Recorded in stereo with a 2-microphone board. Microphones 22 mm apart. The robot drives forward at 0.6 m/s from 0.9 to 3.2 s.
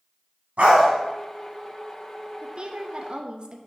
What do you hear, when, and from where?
0.6 s a dog barking: 70° right (ahead or behind), 2 m
2.4 s a woman speaking: 35° right (ahead or behind), 0.6 m